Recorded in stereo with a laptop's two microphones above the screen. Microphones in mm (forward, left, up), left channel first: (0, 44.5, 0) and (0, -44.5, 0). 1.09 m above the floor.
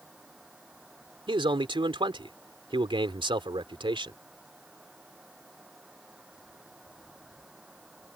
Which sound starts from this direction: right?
A man speaking, at 1.3 s.